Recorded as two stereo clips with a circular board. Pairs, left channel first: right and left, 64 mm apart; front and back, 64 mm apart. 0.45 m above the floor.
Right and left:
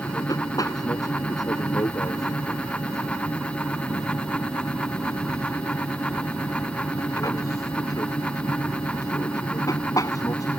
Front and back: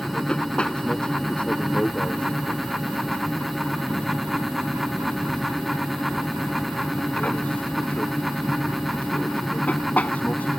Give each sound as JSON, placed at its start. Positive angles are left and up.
{"t": 0.0, "sound": "an aircraft", "azimuth_deg": -75}